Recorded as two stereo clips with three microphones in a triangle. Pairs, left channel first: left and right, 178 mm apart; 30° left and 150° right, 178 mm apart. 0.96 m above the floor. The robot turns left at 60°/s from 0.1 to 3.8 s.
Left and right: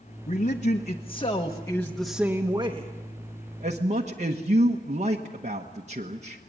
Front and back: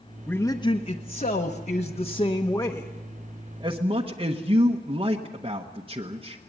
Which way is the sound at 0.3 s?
105° left.